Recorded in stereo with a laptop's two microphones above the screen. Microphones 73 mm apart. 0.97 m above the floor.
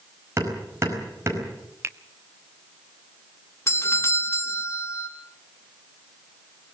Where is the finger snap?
35° right (ahead or behind), 1.1 m.